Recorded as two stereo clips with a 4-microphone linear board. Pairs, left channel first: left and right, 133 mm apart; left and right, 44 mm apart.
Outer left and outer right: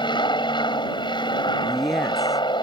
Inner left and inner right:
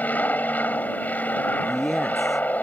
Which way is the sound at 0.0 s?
35° left (ahead or behind).